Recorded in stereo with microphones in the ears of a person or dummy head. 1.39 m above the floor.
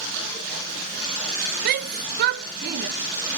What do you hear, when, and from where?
1.6 s a shout: 55° right (ahead or behind), 0.9 m